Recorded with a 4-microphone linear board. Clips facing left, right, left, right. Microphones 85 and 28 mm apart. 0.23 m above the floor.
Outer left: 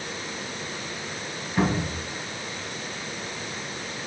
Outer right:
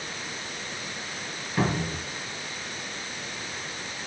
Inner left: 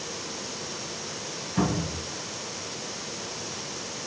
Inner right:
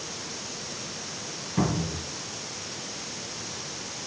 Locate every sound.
1.6 s a cupboard door: centre (ahead or behind), 1.7 m